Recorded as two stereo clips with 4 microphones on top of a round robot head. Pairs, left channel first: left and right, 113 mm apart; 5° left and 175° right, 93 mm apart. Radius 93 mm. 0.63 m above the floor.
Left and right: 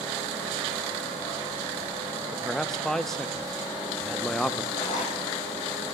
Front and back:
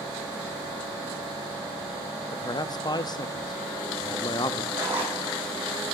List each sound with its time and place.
2.3 s a man speaking: 5° left, 0.7 m
4.7 s a zipper: 120° left, 6 m